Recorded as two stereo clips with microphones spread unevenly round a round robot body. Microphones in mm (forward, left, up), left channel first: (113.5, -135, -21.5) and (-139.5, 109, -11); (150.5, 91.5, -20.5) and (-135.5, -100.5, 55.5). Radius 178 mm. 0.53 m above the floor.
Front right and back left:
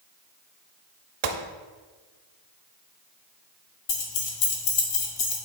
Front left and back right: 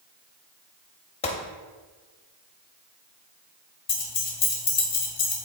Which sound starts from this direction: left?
A gunshot, at 1.2 s.